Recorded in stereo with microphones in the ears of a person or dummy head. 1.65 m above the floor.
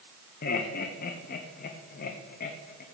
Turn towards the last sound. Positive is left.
turn(degrees=55)  # may be behind; listen again after turning